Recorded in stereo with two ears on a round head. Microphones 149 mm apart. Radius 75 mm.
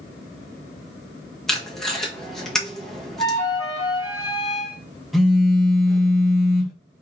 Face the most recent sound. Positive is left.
turn(degrees=0)  # may be behind; listen again after turning